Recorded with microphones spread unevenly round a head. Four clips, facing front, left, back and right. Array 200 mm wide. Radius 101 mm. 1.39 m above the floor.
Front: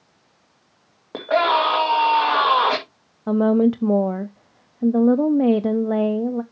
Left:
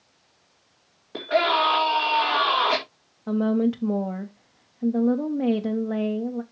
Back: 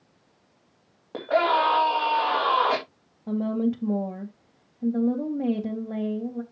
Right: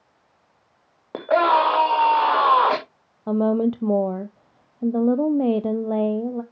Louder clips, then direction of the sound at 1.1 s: Right 4 dB, front 3 dB; 55° right.